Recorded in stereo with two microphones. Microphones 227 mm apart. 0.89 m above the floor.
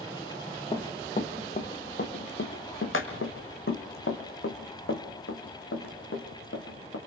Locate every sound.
0.7 s running footsteps: 20° left (ahead or behind), 1.6 m; by 7.0 s 70° left (ahead or behind), 4 m